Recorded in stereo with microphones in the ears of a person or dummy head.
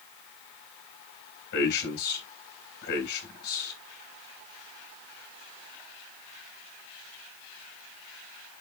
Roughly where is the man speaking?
Left.